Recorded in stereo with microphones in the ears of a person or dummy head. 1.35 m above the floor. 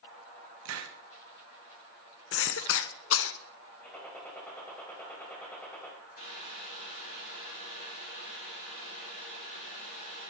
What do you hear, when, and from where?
0.7 s a hiss: 80° right, 1.2 m
2.3 s a cough: 65° left (ahead or behind), 0.9 m
3.8 s a gunshot: 10° left (ahead or behind), 4 m
6.2 s boiling: 55° left (ahead or behind), 6 m